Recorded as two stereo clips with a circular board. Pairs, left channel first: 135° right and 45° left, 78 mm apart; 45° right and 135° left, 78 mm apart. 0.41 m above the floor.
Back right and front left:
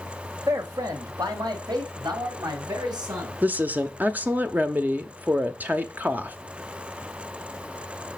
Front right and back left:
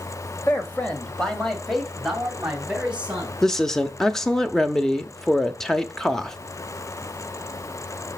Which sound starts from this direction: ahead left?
A woman speaking, at 3.4 s.